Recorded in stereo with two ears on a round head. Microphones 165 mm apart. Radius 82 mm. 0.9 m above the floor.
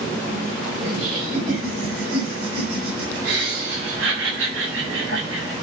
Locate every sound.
0.8 s laughter: 45° right (ahead or behind), 5 m; by 5.5 s 80° right, 7.5 m